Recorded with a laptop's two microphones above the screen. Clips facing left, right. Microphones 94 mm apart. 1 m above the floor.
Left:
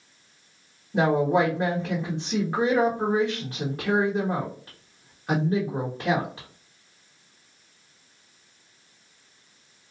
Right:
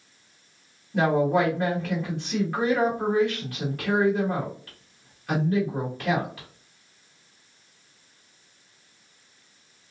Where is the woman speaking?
25° left (ahead or behind), 1.1 m.